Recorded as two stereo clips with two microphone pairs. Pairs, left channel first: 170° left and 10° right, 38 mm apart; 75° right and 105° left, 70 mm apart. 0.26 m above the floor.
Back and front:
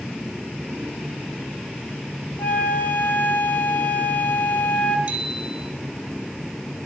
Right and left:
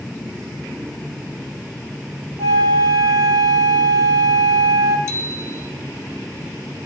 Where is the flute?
130° left, 4 m.